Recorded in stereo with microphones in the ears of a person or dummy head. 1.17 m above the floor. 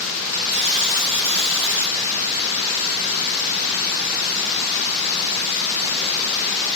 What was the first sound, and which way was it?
A buzzer, 85° right.